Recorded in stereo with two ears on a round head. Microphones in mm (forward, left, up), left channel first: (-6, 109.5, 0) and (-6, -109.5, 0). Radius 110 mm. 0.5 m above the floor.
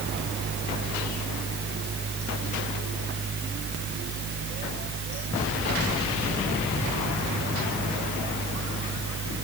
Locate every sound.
Only background noise.